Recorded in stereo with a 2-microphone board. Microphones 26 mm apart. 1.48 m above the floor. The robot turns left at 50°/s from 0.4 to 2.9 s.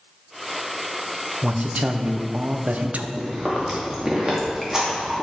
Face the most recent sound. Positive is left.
turn(degrees=-20)  # may be behind; listen again after turning